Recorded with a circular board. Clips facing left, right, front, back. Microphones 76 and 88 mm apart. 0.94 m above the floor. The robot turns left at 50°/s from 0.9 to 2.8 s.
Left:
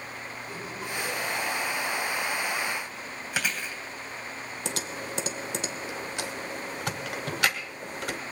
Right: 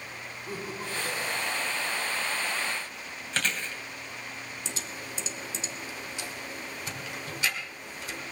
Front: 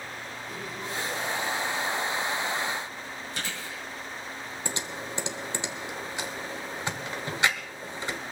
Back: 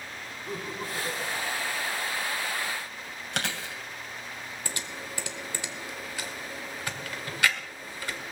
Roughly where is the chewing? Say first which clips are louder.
Even, back 6 dB; behind.